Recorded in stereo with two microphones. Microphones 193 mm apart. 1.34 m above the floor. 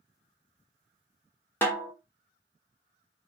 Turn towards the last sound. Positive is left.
turn(degrees=10)  # may be behind; listen again after turning